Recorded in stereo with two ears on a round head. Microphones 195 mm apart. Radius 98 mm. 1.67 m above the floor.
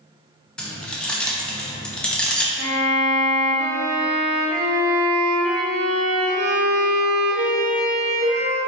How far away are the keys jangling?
About 0.5 m.